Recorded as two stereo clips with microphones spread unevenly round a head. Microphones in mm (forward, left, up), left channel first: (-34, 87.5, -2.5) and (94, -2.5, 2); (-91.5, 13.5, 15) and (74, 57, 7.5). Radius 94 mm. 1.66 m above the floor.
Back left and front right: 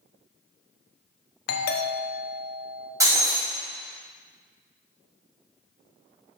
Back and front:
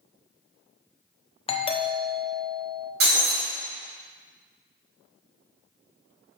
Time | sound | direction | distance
1.5 | a doorbell | 135° left | 0.9 m
3.0 | breaking glass | 30° left | 3.5 m